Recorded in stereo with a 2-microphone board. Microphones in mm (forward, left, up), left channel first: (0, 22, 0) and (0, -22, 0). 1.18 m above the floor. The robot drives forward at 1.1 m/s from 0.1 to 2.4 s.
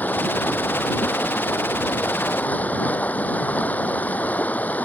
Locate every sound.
0.0 s running water: 40° left (ahead or behind)